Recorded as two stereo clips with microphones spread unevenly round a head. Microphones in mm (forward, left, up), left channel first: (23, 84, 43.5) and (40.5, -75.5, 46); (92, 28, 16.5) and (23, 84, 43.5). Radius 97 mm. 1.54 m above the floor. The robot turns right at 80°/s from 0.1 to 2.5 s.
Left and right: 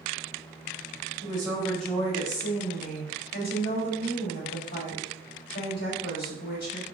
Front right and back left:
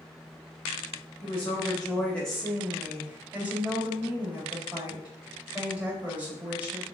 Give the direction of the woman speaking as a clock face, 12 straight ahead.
1 o'clock.